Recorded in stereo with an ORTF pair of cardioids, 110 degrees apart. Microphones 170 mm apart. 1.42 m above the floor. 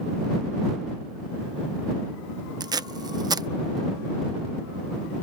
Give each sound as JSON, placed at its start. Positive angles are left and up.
{"t": 2.6, "sound": "tape being pulled", "azimuth_deg": -25}